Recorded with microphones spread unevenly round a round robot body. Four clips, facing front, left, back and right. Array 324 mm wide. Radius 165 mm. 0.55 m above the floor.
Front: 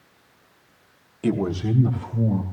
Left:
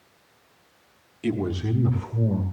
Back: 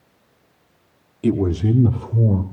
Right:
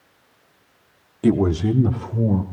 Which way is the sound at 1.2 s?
110° right.